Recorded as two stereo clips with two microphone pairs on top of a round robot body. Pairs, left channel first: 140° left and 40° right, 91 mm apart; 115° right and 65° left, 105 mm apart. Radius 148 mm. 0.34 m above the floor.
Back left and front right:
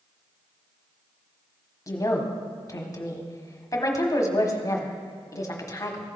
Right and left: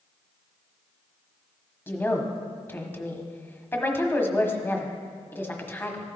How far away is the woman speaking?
About 1.2 m.